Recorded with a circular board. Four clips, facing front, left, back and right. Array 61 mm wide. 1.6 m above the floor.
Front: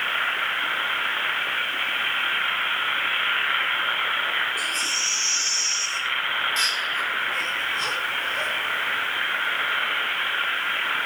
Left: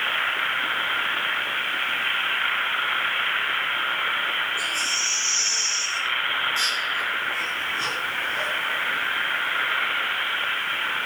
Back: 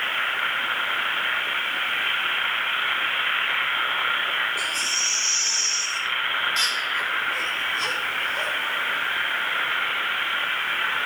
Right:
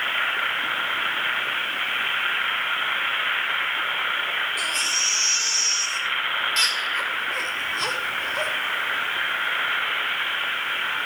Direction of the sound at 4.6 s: 95° right.